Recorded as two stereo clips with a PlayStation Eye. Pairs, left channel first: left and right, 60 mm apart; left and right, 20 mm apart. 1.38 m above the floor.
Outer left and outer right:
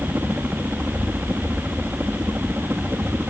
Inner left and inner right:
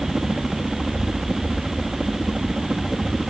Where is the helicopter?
30° right (ahead or behind).